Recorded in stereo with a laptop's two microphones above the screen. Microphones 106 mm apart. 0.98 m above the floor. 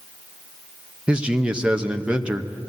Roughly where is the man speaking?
Centre.